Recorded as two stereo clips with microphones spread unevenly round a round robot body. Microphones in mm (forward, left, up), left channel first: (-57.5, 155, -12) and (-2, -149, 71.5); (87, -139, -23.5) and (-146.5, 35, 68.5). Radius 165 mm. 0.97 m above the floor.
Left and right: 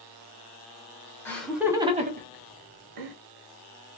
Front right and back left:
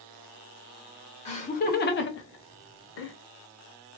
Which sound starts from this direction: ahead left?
Laughter, at 1.2 s.